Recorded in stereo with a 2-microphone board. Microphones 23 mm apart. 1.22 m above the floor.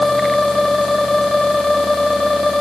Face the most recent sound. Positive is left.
No sound to turn to.